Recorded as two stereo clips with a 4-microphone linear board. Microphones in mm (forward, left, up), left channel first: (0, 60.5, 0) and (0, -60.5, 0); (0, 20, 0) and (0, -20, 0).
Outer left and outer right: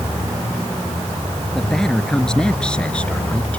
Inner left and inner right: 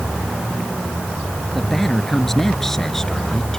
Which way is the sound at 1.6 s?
5° left (ahead or behind).